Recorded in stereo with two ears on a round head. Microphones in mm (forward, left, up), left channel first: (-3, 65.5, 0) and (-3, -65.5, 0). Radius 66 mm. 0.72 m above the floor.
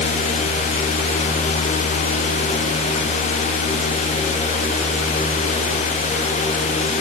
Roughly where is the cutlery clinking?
No cutlery clinking in this recording.